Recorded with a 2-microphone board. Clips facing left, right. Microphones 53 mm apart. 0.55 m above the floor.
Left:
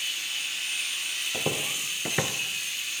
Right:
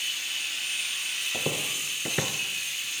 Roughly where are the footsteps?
Centre.